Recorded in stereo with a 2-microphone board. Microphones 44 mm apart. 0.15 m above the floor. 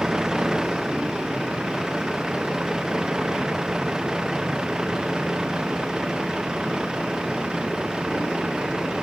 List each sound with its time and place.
0.0 s a vehicle: 15° right (ahead or behind)